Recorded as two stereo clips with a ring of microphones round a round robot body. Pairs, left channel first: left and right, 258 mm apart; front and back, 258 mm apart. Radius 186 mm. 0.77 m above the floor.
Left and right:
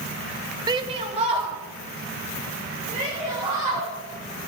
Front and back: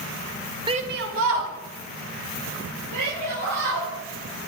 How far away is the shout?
About 0.8 m.